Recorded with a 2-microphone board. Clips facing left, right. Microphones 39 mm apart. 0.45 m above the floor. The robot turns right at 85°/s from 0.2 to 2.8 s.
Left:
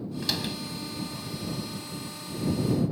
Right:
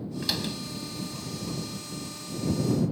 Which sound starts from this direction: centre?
A door slam, at 0.2 s.